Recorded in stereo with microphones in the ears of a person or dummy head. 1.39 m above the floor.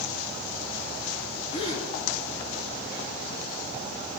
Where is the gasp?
40° left (ahead or behind), 4 m.